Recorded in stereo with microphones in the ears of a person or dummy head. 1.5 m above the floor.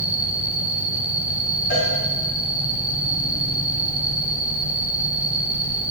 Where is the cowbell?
55° left (ahead or behind), 2.5 m.